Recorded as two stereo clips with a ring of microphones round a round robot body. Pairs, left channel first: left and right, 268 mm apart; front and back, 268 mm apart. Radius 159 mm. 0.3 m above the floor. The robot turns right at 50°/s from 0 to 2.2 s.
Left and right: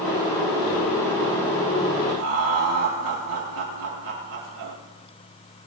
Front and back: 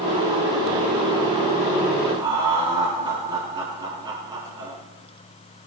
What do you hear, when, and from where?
2.2 s laughter: 105° right, 6 m